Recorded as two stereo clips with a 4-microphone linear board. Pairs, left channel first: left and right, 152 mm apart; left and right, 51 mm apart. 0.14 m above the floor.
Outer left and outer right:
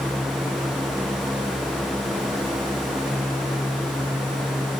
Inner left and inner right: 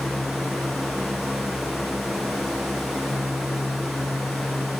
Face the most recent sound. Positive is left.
No sound to turn to.